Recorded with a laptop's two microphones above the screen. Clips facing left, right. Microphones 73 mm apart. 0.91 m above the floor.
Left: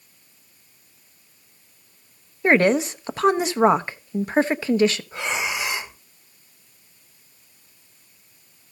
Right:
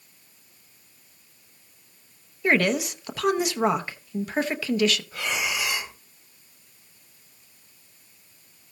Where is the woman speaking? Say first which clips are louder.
Left 5 dB; 30° left (ahead or behind), 0.8 m.